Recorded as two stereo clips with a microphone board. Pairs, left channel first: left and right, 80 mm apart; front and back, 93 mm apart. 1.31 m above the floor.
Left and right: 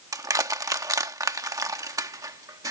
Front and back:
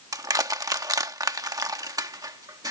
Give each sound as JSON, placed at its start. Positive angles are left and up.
{"t": 0.1, "sound": "crushing", "azimuth_deg": -130}